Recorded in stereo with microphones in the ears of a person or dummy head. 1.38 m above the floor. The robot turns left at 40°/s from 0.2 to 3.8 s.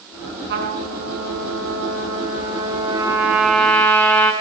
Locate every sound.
0.5 s a trumpet: 60° right, 4 m; by 4.3 s 165° left, 4 m